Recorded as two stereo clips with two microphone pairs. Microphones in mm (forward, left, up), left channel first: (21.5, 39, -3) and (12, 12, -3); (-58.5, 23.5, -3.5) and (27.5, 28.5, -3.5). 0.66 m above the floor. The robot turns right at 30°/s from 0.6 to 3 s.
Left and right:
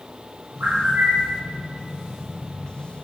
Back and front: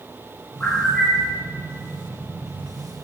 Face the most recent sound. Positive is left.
turn(degrees=-30)